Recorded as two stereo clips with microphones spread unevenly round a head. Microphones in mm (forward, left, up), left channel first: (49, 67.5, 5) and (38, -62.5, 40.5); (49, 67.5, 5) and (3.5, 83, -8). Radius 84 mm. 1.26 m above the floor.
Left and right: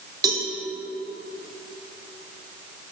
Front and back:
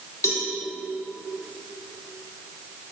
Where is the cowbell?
35° right, 2.5 m.